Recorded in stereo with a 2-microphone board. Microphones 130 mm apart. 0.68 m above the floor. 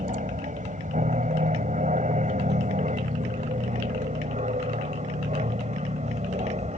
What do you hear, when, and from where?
0.0 s an aircraft: 70° right (ahead or behind); by 6.8 s 60° right (ahead or behind)